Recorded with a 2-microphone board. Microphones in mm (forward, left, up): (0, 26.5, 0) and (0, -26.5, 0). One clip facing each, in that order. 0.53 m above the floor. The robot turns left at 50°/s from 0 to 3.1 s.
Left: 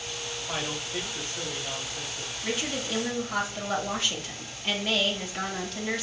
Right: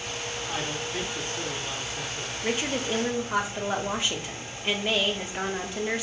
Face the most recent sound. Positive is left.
turn(degrees=-20)  # may be behind; listen again after turning